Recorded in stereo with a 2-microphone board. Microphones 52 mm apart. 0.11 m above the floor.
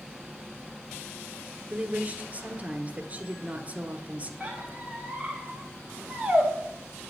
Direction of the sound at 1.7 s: 30° right (ahead or behind).